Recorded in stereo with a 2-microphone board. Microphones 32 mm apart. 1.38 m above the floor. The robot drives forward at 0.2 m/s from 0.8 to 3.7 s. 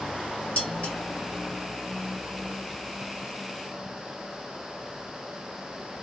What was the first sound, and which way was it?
Dishes clattering, 45° left (ahead or behind).